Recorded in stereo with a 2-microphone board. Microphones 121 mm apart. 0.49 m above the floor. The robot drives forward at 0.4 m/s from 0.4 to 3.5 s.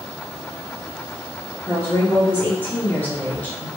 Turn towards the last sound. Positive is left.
turn(degrees=15)  # may be behind; listen again after turning